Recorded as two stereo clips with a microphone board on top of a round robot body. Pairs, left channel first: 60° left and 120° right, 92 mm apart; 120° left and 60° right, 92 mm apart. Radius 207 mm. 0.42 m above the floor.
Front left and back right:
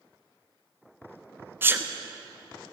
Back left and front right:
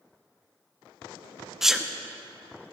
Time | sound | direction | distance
1.6 | a sneeze | 140° right | 1.3 m